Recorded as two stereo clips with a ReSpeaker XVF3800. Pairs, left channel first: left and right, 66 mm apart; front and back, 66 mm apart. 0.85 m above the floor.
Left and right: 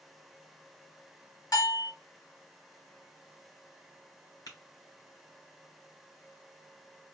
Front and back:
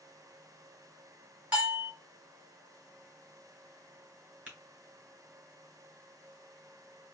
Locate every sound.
1.5 s a bell: 115° left, 1.7 m
4.5 s tapping: 115° left, 3 m